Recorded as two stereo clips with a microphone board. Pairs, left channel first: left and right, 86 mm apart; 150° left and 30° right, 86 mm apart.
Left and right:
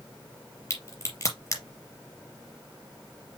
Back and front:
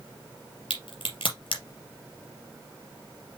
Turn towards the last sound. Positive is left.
turn(degrees=145)